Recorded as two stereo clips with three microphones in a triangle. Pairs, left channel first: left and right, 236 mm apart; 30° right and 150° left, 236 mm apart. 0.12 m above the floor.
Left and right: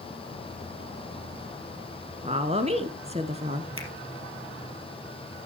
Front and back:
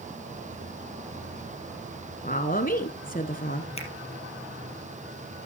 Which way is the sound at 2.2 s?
45° right.